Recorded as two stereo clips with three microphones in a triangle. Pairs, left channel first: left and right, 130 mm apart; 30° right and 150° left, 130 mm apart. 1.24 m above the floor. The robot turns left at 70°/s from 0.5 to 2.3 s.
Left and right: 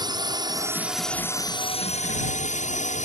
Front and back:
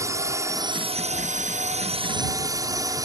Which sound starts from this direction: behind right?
A drone, at 0.0 s.